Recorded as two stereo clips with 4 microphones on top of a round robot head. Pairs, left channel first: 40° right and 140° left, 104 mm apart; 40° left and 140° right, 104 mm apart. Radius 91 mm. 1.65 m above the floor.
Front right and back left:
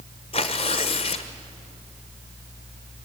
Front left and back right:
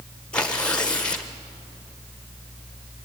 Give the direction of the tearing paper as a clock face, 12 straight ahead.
1 o'clock.